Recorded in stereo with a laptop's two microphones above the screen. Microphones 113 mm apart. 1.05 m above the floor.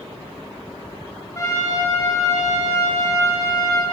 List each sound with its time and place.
1.4 s a trumpet: 30° left (ahead or behind), 2.5 m